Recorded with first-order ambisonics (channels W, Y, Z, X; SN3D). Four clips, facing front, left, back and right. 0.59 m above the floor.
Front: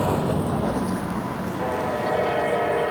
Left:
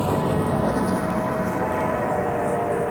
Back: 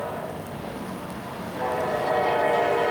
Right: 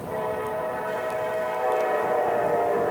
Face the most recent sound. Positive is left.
turn(degrees=75)